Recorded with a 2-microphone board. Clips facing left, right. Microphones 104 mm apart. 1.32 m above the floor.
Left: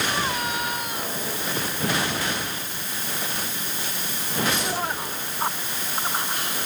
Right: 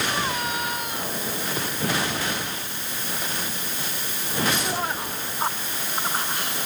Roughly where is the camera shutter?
No camera shutter in this recording.